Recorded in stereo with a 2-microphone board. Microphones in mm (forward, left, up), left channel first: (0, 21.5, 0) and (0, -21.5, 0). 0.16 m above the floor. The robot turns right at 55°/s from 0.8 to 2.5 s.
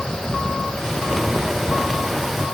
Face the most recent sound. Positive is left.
No sound to turn to.